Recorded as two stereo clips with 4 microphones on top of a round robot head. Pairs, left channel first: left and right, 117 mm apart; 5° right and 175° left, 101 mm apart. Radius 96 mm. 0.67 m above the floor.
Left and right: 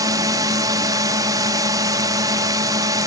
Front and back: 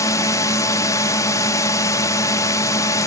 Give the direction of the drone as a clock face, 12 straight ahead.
2 o'clock.